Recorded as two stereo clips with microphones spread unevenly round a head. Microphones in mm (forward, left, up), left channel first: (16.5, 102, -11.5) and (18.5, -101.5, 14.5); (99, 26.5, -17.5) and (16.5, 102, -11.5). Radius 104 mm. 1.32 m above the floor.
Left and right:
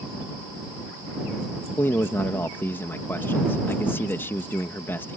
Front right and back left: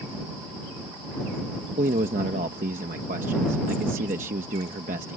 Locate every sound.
1.8 s a man speaking: 170° left